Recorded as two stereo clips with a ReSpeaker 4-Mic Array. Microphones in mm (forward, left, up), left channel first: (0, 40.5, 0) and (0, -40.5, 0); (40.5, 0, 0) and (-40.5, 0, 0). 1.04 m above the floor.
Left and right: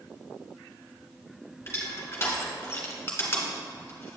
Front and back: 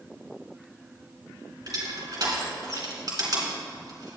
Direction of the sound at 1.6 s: 150° left.